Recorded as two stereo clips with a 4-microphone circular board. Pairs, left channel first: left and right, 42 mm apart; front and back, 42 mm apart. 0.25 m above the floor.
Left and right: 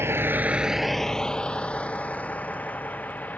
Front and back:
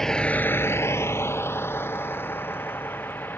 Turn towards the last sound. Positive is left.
turn(degrees=40)